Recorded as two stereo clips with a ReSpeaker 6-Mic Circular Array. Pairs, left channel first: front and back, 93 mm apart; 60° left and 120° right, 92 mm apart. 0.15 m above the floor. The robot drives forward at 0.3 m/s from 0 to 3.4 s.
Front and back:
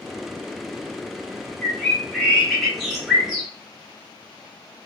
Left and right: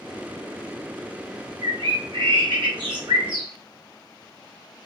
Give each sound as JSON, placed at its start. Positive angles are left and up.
{"t": 1.6, "sound": "a bird", "azimuth_deg": -75, "distance_m": 1.7}